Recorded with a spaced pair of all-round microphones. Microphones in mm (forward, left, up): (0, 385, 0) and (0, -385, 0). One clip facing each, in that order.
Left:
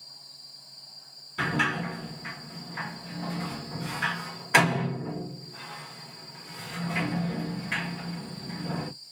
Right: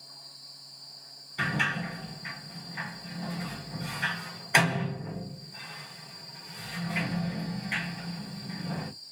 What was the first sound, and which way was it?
A sliding door, 45° left (ahead or behind).